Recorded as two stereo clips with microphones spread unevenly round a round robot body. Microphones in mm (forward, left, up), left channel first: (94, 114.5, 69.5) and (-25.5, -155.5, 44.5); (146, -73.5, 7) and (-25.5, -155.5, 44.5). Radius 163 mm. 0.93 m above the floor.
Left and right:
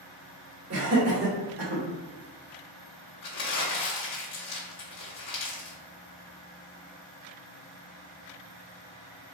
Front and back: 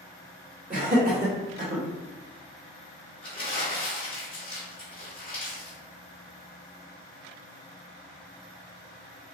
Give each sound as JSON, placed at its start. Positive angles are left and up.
{"t": 0.7, "sound": "laughter", "azimuth_deg": -110, "distance_m": 1.5}
{"t": 3.2, "sound": "crumpling", "azimuth_deg": 70, "distance_m": 1.1}